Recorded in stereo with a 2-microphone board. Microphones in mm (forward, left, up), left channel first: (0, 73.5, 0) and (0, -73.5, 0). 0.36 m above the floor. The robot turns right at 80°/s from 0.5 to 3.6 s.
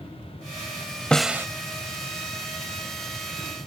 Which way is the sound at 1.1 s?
5° left (ahead or behind).